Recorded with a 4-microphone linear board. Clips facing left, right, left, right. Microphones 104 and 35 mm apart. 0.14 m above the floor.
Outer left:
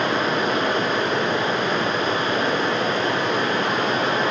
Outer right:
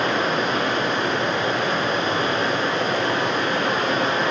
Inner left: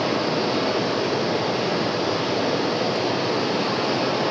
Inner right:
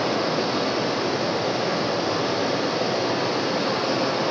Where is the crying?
No crying in this recording.